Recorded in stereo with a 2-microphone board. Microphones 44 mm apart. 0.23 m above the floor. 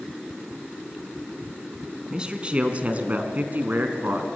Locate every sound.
2.1 s a man speaking: 20° right (ahead or behind), 2.5 m; by 4.3 s 55° right (ahead or behind), 2.5 m